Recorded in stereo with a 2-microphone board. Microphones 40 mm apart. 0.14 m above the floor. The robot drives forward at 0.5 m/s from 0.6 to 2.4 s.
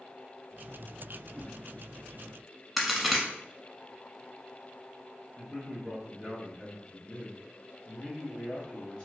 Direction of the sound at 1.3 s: 30° right (ahead or behind).